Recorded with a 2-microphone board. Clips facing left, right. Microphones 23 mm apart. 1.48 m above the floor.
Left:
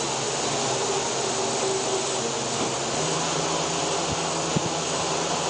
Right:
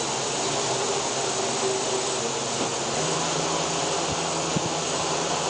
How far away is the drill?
No drill in this recording.